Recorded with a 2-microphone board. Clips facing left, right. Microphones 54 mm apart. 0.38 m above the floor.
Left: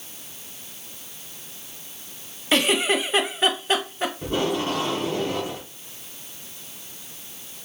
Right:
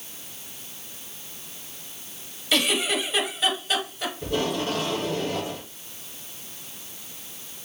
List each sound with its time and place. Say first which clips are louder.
2.5 s a giggle: left 3 dB; 35° left (ahead or behind), 0.7 m
4.2 s tape being pulled: left 1 dB; 25° left (ahead or behind), 1.7 m